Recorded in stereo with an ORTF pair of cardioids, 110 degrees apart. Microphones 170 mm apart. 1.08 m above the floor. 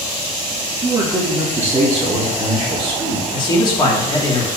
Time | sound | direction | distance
0.8 | a man speaking | 25° right | 1.5 m
3.3 | a man speaking | 30° left | 3 m